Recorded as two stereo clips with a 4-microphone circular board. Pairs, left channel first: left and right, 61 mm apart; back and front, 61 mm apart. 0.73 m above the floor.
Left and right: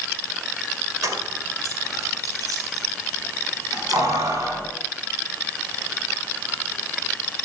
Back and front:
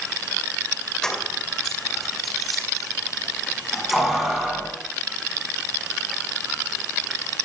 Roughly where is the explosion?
I don't hear an explosion.